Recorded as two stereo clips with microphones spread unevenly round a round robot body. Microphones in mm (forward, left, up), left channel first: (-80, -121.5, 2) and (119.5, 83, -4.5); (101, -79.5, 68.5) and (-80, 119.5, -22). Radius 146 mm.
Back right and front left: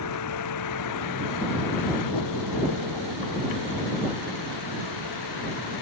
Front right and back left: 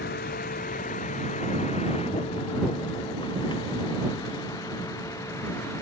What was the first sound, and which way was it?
A vehicle, 105° right.